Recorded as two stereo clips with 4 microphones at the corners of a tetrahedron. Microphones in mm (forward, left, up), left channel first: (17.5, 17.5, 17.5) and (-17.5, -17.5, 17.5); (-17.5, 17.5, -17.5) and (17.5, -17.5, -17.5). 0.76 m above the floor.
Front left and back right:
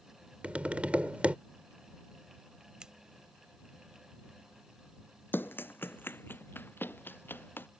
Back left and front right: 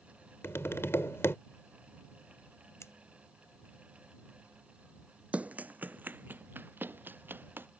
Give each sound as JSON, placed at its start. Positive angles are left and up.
{"t": 0.4, "sound": "tapping", "azimuth_deg": 165}
{"t": 2.8, "sound": "scissors", "azimuth_deg": 150}
{"t": 5.3, "sound": "running footsteps", "azimuth_deg": 15}